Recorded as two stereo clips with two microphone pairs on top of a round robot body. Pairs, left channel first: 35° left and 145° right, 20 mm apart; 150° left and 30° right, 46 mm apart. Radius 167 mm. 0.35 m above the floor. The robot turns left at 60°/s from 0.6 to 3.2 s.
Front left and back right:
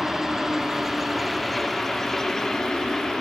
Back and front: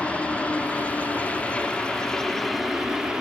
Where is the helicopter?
175° left; by 3.2 s 15° left.